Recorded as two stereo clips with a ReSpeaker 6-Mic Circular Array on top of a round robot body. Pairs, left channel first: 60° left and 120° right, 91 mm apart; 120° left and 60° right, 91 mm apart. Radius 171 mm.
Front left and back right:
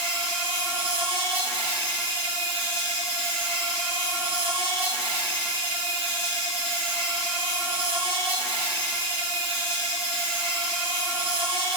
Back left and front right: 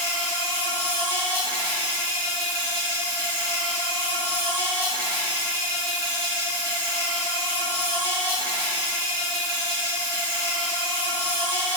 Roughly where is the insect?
Behind right.